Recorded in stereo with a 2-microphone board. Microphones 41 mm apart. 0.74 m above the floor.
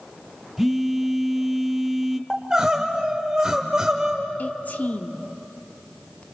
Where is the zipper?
No zipper in this recording.